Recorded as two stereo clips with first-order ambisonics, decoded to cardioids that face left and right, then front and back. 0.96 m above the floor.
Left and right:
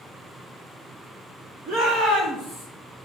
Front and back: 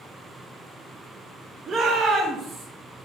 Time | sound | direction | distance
1.7 | a shout | 125° right | 2 m